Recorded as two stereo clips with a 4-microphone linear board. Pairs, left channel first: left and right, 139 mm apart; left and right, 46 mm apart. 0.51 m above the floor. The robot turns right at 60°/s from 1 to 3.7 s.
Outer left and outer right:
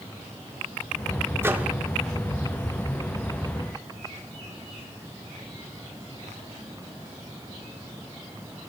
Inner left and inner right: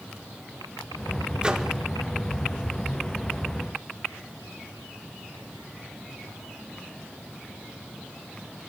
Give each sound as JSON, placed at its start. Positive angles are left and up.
{"t": 1.4, "sound": "a microwave", "side_deg": -20, "distance_m": 0.6}